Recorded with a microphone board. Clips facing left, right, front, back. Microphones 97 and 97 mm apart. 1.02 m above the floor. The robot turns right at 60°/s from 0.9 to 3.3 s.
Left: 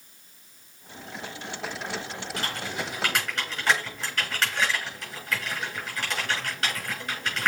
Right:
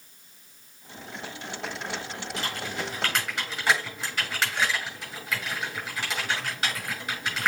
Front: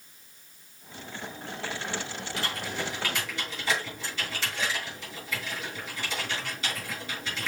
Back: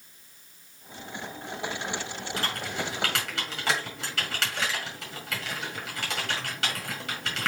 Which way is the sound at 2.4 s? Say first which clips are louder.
Even, back 1 dB; 130° left.